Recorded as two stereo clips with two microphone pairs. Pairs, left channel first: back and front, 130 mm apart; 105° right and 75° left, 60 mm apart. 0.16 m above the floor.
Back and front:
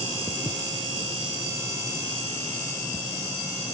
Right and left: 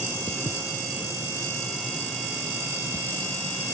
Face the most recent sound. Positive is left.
turn(degrees=-150)